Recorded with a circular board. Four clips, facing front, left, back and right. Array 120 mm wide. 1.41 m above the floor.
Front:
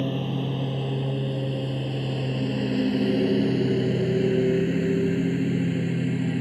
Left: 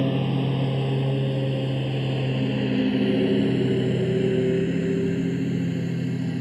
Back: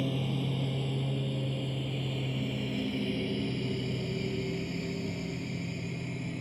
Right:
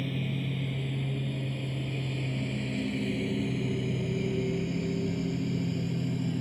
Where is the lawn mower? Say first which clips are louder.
Left 10 dB, front 5 dB; 70° left; by 6.4 s 20° left.